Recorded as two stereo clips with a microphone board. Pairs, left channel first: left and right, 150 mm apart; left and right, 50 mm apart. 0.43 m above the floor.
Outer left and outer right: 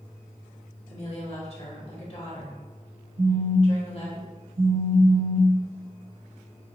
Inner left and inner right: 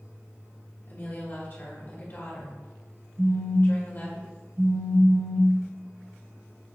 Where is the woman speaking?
45° left (ahead or behind), 1.1 m.